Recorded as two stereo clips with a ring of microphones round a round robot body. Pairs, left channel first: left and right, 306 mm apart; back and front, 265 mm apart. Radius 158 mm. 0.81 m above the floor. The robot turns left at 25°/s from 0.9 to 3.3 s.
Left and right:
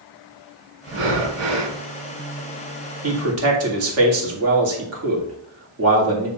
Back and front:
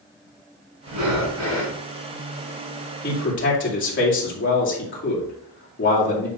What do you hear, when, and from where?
0.9 s breathing: 35° right, 1.7 m; by 1.8 s 60° right, 1.7 m
3.0 s a man speaking: 125° right, 2.5 m; by 6.3 s 130° right, 2.5 m